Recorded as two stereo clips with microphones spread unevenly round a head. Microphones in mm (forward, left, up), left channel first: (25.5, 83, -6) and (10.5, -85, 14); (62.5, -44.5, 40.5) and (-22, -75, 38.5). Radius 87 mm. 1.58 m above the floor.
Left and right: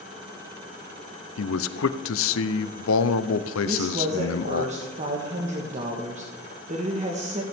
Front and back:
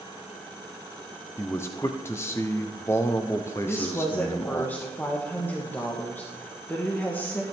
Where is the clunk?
I don't hear a clunk.